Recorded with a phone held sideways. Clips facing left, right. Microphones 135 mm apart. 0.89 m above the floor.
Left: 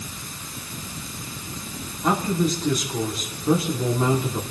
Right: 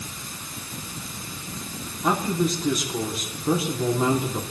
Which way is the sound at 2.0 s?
5° right (ahead or behind).